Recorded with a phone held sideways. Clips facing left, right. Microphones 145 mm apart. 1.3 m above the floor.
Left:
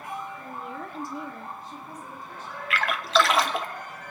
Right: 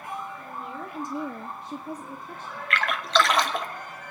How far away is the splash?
About 0.7 m.